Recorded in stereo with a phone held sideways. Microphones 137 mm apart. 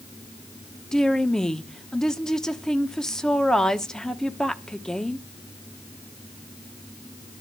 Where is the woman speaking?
5° left (ahead or behind), 1.1 m.